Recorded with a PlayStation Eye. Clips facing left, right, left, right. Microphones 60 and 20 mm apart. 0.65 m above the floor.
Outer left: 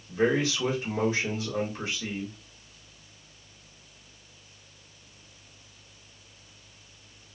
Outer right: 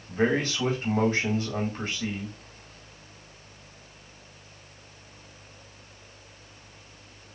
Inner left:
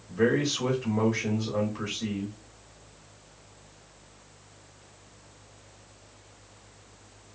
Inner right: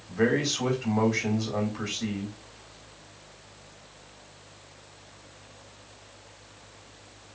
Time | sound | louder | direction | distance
0.1 | a man speaking | even, even | 45° right (ahead or behind) | 1.4 m